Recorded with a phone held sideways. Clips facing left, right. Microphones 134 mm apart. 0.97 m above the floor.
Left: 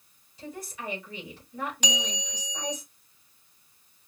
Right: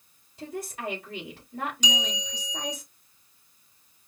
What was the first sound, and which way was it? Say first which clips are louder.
A woman speaking: right 4 dB; 55° right (ahead or behind).